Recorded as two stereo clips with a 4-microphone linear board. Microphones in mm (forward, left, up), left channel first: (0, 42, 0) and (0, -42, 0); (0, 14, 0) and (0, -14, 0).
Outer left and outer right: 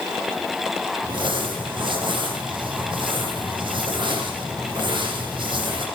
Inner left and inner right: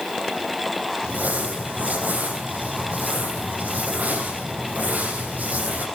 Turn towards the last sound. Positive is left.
turn(degrees=-75)  # may be behind; listen again after turning